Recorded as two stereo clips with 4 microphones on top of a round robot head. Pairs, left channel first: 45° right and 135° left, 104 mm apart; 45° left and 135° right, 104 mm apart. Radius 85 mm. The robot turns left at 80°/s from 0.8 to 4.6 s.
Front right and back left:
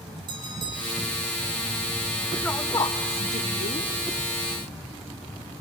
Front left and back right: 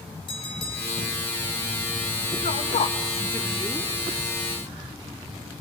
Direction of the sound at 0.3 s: 90° left.